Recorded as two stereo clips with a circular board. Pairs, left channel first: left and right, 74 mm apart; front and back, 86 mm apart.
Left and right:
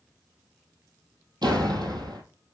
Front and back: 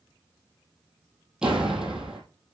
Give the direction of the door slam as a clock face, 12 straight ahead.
3 o'clock.